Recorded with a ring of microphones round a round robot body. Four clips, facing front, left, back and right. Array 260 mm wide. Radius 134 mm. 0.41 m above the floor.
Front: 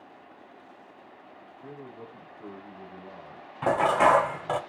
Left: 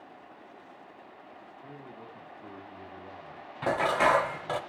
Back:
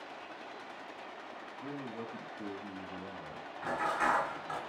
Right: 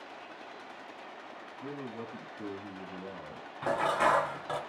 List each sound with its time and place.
1.6 s a man speaking: 115° right, 4.5 m
3.6 s dishes clattering: 15° left, 1.3 m